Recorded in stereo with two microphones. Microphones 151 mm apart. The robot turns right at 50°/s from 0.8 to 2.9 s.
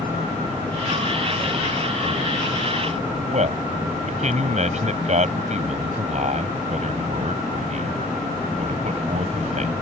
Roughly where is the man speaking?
Right.